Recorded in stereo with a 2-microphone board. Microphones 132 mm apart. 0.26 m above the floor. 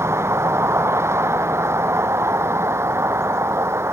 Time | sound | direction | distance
0.0 | a vehicle | 20° right (ahead or behind) | ?